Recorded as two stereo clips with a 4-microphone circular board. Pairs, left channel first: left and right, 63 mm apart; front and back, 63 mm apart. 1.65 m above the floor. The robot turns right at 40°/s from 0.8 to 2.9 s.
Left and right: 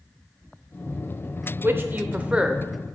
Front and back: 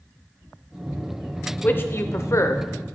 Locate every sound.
1.6 s a man speaking: 50° right, 0.6 m; by 2.6 s 10° right, 0.6 m